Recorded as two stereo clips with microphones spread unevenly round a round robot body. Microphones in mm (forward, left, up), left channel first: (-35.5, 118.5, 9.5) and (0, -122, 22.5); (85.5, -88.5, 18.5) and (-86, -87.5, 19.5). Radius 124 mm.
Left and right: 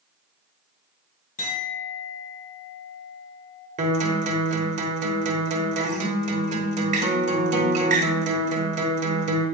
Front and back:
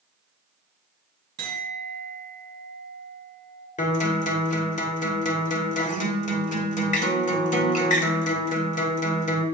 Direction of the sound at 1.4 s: 155° left.